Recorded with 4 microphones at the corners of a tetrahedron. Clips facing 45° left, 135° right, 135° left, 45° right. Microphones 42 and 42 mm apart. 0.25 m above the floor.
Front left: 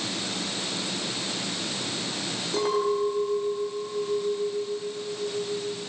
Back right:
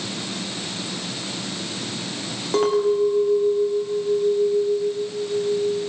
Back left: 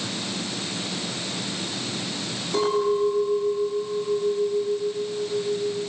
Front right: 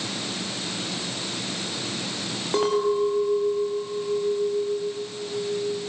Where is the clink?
95° right, 6 m.